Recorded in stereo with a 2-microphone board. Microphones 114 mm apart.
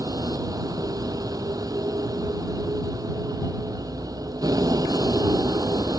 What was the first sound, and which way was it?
A vehicle, 35° right (ahead or behind).